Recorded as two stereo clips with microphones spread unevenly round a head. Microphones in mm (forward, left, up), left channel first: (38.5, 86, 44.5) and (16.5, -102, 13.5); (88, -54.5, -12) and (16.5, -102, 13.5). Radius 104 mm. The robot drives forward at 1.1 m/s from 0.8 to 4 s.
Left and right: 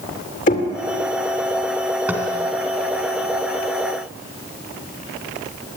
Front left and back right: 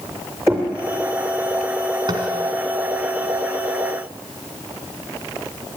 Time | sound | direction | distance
0.5 | knocking | 135° left | 2.5 m
2.1 | tapping | 175° left | 3 m